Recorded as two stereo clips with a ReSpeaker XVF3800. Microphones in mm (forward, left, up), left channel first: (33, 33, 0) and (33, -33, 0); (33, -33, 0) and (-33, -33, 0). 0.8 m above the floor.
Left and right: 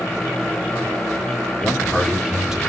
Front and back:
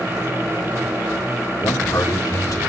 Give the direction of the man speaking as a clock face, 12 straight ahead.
12 o'clock.